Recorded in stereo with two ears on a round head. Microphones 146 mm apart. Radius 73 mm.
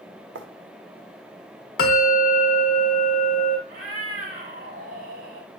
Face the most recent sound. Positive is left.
turn(degrees=-50)  # may be behind; listen again after turning